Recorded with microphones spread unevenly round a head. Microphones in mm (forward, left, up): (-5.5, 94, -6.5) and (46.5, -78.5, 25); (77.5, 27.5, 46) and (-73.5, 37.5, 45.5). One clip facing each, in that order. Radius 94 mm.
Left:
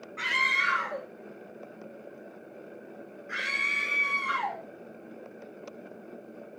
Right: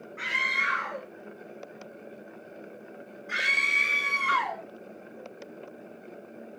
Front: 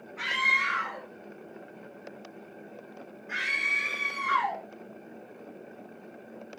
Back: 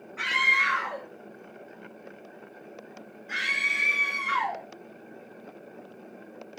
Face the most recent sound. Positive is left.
turn(degrees=-110)